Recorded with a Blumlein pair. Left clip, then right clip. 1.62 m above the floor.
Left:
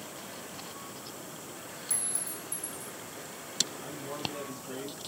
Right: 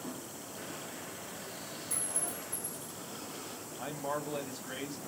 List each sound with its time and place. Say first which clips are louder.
1.9 s a clink: left 1 dB; 45° left, 1.8 m
3.8 s a man speaking: right 1 dB; 35° right, 1.1 m